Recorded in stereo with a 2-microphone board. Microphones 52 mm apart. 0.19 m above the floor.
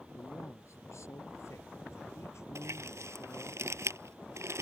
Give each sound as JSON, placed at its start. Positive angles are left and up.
{"t": 0.1, "sound": "a man speaking", "side_deg": 70}
{"t": 2.5, "sound": "crumpling", "side_deg": -70}